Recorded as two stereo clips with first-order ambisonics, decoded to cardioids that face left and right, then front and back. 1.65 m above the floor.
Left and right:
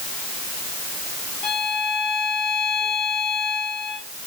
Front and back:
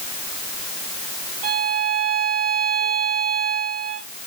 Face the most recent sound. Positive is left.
turn(degrees=150)